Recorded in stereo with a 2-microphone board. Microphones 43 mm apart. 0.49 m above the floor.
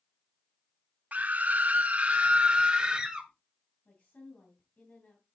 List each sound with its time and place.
1.1 s a scream: 40° right (ahead or behind), 0.9 m; by 3.3 s 20° right (ahead or behind), 1.6 m
3.9 s a woman speaking: 35° left (ahead or behind), 3 m